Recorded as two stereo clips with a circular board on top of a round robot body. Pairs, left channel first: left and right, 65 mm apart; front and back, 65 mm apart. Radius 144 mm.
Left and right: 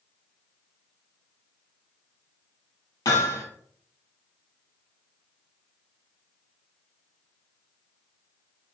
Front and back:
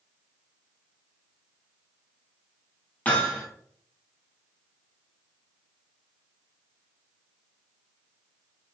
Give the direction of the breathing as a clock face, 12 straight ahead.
No breathing in this recording.